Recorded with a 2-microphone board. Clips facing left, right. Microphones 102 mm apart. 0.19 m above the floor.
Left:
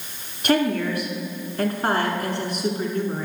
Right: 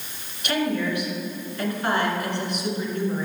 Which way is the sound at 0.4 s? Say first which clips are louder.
Left 4 dB; 45° left (ahead or behind).